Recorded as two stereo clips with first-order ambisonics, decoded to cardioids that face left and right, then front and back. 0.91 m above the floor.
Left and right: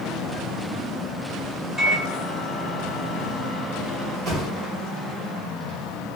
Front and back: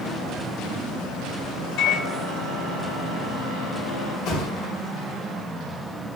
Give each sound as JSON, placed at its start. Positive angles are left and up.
{"t": 1.8, "sound": "a microwave", "azimuth_deg": -15, "distance_m": 1.4}
{"t": 4.2, "sound": "a thud", "azimuth_deg": -35, "distance_m": 1.5}